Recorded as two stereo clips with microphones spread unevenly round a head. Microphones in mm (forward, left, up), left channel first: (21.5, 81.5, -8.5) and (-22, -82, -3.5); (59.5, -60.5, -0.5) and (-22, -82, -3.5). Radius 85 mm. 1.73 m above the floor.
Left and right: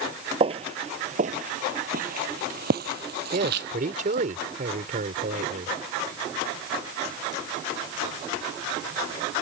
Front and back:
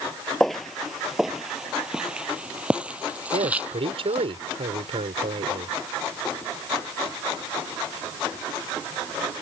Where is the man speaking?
155° right.